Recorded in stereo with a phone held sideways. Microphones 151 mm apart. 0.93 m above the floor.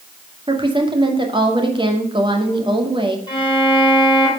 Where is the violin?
30° left (ahead or behind), 5.5 m.